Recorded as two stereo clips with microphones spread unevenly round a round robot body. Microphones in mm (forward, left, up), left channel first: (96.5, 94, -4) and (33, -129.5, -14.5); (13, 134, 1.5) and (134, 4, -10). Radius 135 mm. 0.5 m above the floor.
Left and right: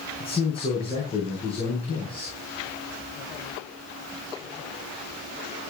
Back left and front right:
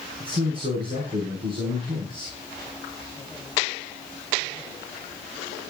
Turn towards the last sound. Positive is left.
turn(degrees=10)